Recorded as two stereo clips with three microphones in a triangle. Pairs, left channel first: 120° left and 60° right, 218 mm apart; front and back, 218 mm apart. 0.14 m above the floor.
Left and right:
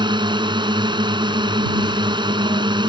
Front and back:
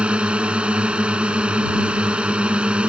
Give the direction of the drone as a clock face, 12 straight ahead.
3 o'clock.